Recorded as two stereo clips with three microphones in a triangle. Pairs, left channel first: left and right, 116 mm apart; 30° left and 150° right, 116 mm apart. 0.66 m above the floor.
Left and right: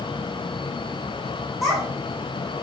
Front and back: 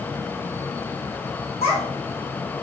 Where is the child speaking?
Straight ahead, 1.3 m.